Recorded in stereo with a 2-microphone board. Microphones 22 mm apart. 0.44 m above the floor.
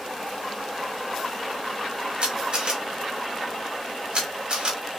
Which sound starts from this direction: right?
A camera shutter, at 2.2 s.